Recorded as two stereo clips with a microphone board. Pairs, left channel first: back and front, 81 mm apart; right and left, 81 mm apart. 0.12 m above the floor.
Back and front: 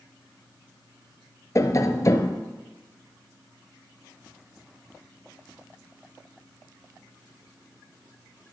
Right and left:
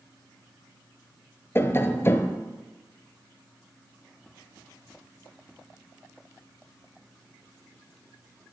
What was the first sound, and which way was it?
Tapping, 140° right.